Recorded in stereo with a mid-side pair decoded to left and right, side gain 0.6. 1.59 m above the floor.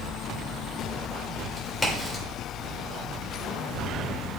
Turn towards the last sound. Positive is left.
turn(degrees=5)